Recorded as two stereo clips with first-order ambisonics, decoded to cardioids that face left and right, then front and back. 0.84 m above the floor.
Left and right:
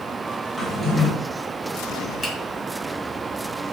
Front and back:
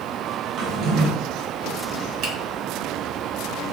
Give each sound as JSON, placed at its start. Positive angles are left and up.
{"t": 0.6, "sound": "a drawer", "azimuth_deg": -175, "distance_m": 0.7}
{"t": 2.2, "sound": "a finger snap", "azimuth_deg": -170, "distance_m": 1.0}